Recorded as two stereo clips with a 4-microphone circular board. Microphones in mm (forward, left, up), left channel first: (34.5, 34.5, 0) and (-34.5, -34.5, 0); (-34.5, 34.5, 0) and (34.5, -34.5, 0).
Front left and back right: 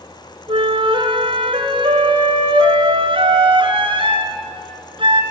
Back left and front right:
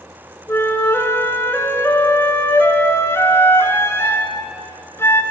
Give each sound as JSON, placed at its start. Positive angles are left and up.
{"t": 0.5, "sound": "a flute", "azimuth_deg": -160, "distance_m": 2.5}